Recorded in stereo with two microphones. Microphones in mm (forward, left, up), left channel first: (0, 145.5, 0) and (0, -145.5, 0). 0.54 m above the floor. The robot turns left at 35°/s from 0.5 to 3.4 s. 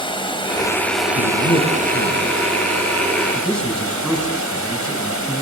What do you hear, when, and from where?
0.0 s running water: 20° left, 2.5 m; by 5.4 s 85° right, 2.5 m
1.1 s a man speaking: 70° left (ahead or behind), 4 m; by 5.4 s 5° left (ahead or behind), 4 m